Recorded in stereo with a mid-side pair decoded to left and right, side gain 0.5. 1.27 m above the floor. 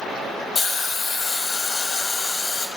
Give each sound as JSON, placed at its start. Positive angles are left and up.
{"t": 0.6, "sound": "a hiss", "azimuth_deg": 35, "distance_m": 2.0}